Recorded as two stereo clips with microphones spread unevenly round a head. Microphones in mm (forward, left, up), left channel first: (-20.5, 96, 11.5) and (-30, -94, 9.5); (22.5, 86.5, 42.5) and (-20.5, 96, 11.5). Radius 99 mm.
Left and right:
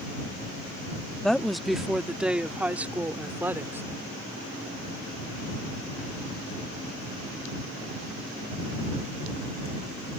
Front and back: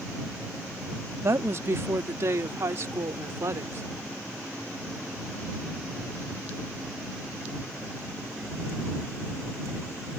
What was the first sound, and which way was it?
A woman speaking, 175° left.